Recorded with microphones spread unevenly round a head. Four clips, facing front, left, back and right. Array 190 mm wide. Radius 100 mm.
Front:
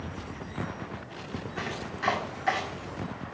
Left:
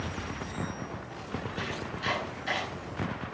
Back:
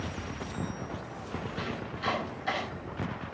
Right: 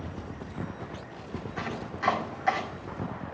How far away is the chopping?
About 6.5 m.